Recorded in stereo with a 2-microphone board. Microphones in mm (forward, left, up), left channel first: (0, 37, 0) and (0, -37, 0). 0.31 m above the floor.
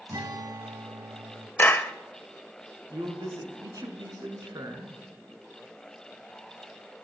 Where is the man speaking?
60° right (ahead or behind), 3.5 m.